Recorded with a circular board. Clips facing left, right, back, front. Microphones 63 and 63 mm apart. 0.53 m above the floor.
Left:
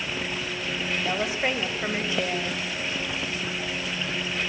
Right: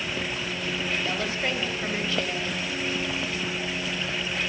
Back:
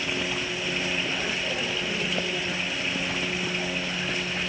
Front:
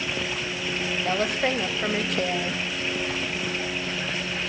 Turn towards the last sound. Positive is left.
turn(degrees=20)